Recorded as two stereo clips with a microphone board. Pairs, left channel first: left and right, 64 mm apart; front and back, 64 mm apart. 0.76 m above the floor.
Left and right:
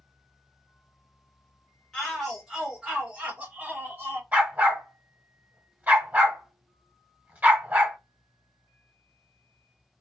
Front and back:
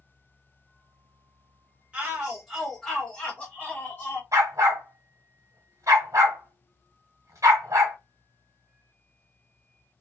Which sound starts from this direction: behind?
A shout, at 1.9 s.